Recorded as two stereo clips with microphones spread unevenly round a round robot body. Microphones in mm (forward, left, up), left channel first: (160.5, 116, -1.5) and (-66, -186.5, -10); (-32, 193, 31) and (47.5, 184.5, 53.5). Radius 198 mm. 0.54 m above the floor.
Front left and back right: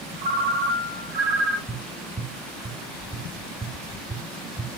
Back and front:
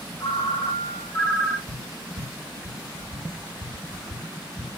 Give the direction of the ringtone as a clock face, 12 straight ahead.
6 o'clock.